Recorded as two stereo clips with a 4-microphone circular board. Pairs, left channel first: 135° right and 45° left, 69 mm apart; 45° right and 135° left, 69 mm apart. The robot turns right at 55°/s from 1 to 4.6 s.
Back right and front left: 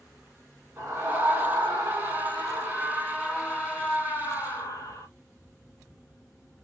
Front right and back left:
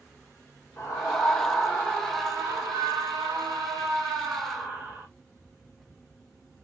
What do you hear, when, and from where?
0.8 s a scream: 5° left, 7 m; by 5.1 s 155° right, 7 m